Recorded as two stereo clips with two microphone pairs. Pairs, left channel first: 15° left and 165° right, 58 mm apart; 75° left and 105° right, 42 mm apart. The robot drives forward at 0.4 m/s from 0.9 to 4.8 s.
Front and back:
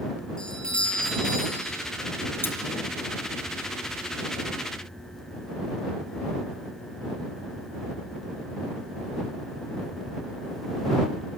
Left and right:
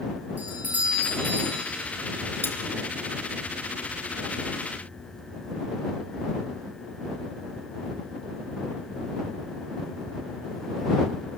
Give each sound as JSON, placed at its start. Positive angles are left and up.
{"t": 0.4, "sound": "a doorbell", "azimuth_deg": -60, "distance_m": 7.0}
{"t": 2.4, "sound": "cutlery clinking", "azimuth_deg": 60, "distance_m": 1.9}